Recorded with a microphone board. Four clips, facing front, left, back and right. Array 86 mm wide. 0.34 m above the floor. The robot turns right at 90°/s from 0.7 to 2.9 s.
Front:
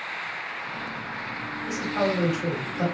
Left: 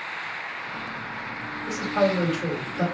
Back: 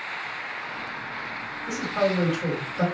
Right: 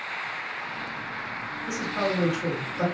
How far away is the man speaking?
About 1.8 m.